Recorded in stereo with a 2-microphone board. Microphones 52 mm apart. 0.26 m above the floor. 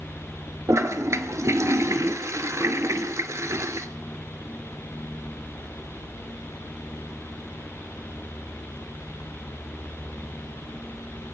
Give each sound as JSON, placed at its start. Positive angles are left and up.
{"t": 0.7, "sound": "a toilet flushing", "side_deg": -75, "distance_m": 0.8}